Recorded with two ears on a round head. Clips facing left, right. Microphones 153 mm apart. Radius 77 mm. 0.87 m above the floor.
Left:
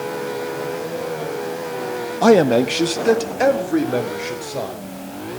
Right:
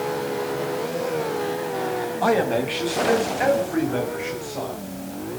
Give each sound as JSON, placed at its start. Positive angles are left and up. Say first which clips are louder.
{"t": 2.2, "sound": "a man speaking", "louder": "left 9 dB", "side_deg": 55, "distance_m": 1.0}